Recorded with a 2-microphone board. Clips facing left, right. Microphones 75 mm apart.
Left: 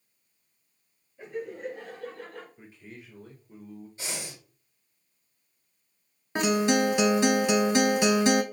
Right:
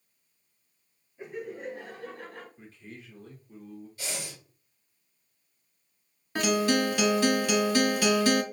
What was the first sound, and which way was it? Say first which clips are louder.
Laughter: left 2 dB; 5° right (ahead or behind).